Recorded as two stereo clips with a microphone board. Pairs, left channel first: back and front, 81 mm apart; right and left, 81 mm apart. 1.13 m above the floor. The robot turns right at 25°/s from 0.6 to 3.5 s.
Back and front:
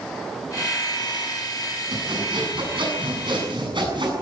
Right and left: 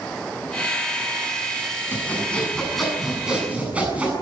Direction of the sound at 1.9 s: 25° right.